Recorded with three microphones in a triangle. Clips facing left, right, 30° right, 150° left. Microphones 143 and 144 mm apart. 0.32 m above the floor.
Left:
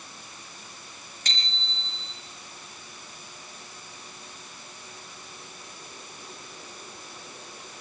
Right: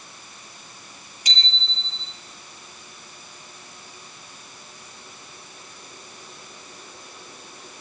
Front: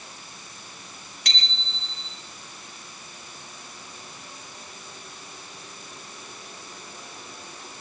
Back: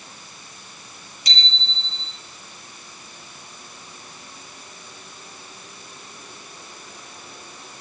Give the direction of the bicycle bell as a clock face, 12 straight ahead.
12 o'clock.